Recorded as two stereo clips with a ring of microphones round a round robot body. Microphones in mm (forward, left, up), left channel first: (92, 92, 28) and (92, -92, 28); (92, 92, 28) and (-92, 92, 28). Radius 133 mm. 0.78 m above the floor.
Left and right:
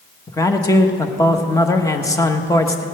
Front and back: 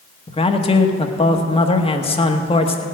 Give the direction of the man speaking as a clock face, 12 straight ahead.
11 o'clock.